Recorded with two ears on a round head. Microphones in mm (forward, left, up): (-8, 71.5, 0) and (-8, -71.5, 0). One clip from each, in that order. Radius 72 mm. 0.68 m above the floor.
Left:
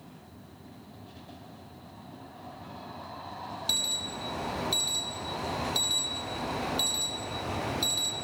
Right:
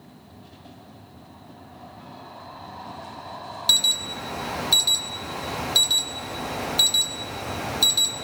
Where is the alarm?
35° right (ahead or behind), 1.3 m.